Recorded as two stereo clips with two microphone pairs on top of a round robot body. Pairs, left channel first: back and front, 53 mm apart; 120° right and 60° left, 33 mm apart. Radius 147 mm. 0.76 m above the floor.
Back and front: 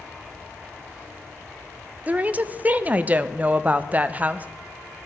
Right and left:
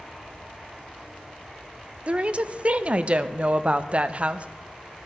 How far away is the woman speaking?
About 0.5 m.